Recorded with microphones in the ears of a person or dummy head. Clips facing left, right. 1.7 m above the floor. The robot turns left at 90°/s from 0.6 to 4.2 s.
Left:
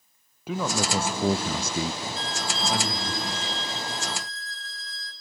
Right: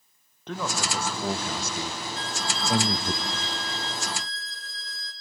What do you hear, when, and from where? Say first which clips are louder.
0.5 s a man speaking: left 4 dB; 170° left, 0.7 m; by 3.1 s 60° right, 0.7 m
2.1 s a violin: left 1 dB; 75° left, 2.5 m; by 5.1 s 110° right, 2.5 m